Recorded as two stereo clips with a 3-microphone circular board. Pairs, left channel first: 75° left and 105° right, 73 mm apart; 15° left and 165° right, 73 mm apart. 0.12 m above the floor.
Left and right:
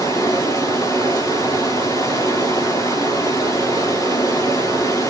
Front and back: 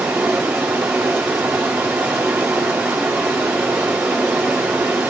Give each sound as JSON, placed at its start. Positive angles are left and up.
{"t": 0.0, "sound": "running water", "azimuth_deg": 115, "distance_m": 5.0}